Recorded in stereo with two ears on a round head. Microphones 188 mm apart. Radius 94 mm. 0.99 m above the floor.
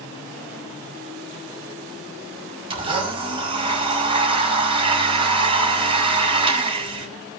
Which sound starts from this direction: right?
A blender, at 2.7 s.